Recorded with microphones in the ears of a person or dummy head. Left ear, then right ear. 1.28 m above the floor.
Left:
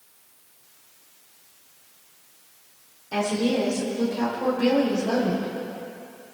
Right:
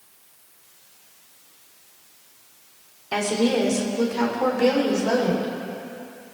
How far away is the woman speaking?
About 3 m.